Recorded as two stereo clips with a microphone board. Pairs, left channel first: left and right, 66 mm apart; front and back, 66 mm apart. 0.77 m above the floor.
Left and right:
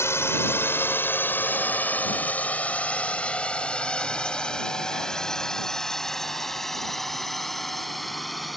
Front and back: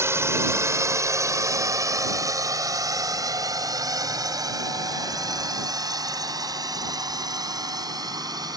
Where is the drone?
135° left; by 8.6 s straight behind.